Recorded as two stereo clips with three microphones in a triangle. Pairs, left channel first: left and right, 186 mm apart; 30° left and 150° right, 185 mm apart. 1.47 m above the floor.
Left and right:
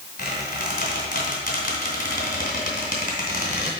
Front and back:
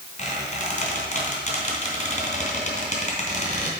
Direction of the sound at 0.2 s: 65° left.